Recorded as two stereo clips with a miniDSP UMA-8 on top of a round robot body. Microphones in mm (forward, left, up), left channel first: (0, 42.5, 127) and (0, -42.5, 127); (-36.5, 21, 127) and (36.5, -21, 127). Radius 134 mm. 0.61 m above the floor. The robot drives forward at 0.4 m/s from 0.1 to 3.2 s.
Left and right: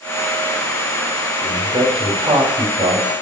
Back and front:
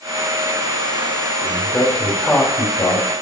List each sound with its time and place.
1.4 s a man speaking: 130° right, 4.5 m; by 3.1 s 135° right, 5 m